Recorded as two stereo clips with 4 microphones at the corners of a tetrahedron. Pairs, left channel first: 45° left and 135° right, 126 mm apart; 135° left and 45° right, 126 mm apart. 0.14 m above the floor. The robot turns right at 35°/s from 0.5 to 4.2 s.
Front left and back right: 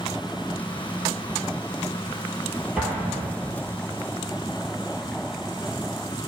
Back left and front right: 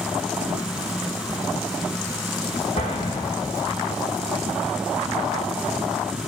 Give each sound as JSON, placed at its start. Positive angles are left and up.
{"t": 2.8, "sound": "an explosion", "azimuth_deg": 140, "distance_m": 2.0}